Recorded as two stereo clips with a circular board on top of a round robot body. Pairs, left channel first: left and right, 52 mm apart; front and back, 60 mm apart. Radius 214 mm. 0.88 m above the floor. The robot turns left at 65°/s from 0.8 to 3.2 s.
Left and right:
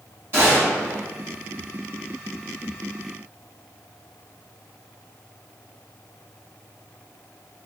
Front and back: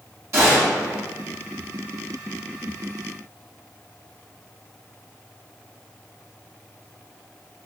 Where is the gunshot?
140° right, 1.8 m; by 1.0 s 155° right, 1.8 m.